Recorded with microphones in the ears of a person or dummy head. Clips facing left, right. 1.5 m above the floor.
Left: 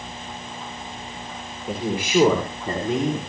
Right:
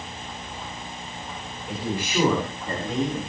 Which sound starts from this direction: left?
A man speaking, at 1.7 s.